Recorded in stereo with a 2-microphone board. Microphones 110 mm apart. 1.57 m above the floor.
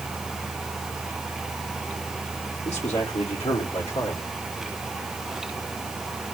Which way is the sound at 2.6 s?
75° left (ahead or behind).